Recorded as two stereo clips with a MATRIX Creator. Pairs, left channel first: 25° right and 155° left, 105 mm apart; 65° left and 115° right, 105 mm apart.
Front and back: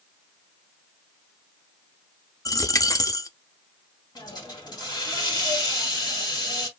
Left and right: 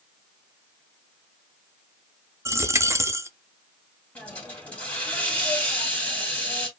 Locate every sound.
2.5 s a dropped coin: 65° right, 0.6 m
4.2 s a hiss: straight ahead, 1.8 m